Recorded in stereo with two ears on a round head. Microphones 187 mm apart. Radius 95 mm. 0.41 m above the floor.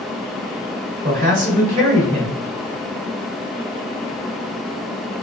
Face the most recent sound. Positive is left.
turn(degrees=-35)  # may be behind; listen again after turning